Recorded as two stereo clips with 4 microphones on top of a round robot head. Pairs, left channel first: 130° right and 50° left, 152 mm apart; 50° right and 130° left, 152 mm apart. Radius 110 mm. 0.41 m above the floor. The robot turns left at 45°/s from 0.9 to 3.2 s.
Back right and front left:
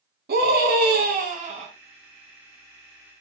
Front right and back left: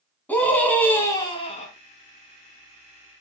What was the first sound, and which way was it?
A scream, 30° left.